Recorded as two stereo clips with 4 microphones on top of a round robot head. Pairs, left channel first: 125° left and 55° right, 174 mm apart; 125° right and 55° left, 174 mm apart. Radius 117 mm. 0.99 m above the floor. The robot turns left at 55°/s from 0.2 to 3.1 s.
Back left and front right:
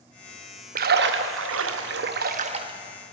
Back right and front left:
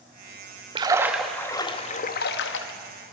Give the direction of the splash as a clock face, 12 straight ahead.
12 o'clock.